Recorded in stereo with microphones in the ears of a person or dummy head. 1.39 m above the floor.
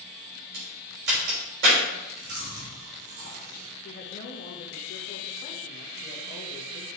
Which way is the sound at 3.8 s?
45° left (ahead or behind).